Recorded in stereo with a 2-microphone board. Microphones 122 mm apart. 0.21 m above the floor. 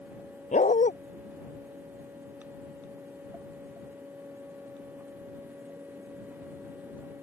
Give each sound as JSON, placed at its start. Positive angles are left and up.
{"t": 0.5, "sound": "a dog barking", "side_deg": 80}